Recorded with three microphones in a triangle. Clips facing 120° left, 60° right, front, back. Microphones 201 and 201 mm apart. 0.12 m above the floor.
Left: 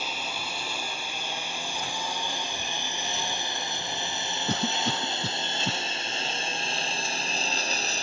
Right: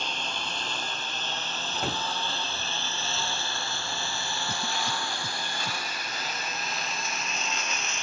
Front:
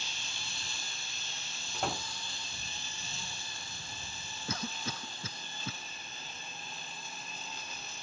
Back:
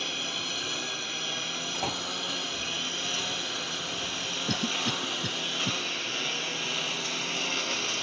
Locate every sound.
0.0 s a lawn mower: 155° right; by 8.0 s 175° left
1.7 s a door slam: 95° right
4.5 s a cough: 120° left